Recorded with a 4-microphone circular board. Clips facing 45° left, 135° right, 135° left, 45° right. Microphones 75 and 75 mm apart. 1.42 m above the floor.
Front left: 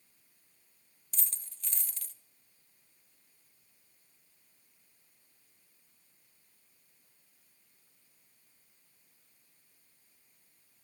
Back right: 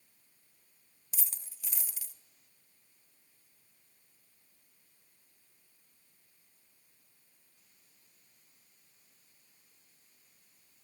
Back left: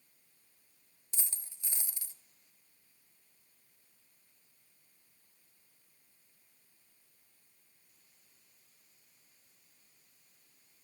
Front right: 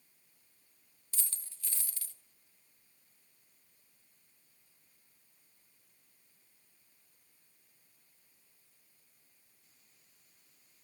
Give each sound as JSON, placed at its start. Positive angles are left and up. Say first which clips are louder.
{"t": 1.1, "sound": "a dropped coin", "louder": "even, back left 1 dB", "azimuth_deg": 160, "distance_m": 0.8}